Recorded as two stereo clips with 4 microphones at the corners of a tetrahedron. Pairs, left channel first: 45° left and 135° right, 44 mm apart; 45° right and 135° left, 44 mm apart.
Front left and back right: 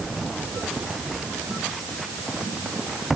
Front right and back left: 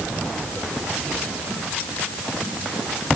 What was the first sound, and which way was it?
Only background noise.